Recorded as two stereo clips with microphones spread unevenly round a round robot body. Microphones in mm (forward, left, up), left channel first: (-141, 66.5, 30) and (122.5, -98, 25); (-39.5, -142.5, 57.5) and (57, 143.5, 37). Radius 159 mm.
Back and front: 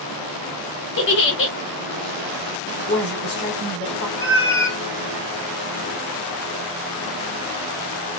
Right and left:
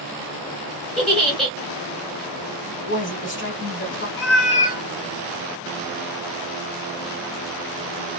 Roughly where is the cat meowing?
Behind right.